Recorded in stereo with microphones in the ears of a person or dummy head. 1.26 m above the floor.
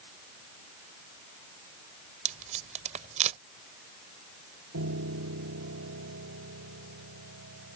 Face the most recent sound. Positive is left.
turn(degrees=-80)